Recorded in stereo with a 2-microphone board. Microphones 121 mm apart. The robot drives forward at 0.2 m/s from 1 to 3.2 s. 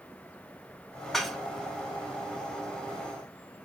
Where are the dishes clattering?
5° left (ahead or behind), 0.6 m.